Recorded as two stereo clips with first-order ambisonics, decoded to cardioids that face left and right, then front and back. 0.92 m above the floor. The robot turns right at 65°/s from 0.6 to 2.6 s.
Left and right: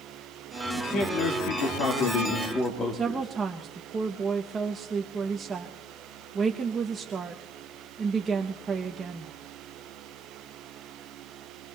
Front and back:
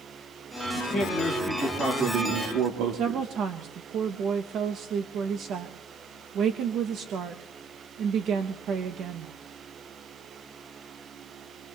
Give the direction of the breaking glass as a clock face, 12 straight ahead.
No breaking glass in this recording.